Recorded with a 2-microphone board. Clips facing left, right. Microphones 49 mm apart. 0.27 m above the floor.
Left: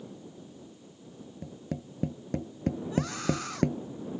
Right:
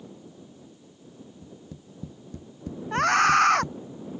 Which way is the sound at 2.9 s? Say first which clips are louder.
Right 15 dB; 75° right (ahead or behind).